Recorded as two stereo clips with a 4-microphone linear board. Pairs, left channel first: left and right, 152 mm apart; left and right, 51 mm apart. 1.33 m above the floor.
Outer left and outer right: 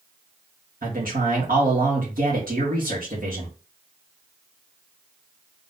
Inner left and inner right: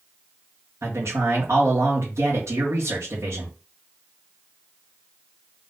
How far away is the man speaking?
About 1.8 m.